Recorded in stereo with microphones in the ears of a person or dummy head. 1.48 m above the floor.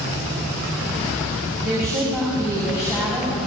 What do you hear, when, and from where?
1.6 s a woman speaking: 5° left (ahead or behind), 3.5 m